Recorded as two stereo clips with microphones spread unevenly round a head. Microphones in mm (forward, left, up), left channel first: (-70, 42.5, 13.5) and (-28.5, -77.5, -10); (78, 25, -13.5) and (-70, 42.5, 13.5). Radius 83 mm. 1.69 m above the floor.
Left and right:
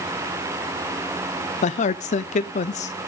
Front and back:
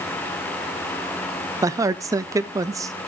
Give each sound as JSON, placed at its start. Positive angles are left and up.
{"t": 1.6, "sound": "a man speaking", "azimuth_deg": 110, "distance_m": 0.5}